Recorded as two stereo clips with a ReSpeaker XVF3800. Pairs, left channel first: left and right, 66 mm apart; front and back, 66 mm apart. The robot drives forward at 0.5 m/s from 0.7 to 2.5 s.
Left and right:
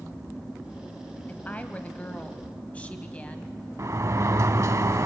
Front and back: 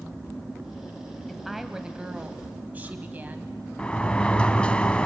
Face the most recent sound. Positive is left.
turn(degrees=-70)